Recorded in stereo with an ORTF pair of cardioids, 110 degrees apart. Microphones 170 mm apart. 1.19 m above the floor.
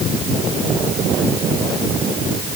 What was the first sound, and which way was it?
Only background noise.